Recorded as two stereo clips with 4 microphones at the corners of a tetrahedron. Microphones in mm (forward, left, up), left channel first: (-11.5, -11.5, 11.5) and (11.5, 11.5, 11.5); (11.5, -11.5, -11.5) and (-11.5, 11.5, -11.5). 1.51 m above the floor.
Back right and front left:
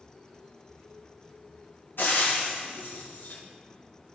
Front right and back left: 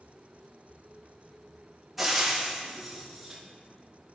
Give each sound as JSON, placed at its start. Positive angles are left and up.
{"t": 2.0, "sound": "frying", "azimuth_deg": -140, "distance_m": 1.4}